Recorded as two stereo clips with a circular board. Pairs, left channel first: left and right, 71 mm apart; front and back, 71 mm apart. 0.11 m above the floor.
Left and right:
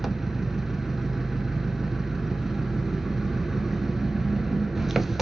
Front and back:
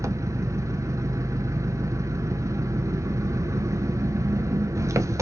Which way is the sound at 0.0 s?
175° right.